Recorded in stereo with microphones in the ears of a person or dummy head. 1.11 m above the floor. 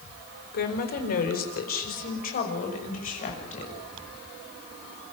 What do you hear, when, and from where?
0.5 s a woman speaking: 50° left (ahead or behind), 4 m; by 3.8 s 40° left (ahead or behind), 6.5 m